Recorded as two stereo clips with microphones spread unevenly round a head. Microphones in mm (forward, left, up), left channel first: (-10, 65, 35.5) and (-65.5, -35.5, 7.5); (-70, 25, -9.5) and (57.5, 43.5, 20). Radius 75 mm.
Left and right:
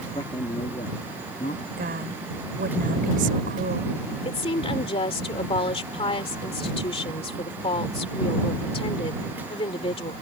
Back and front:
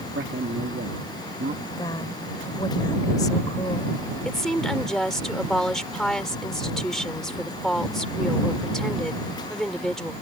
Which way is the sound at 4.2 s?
100° left.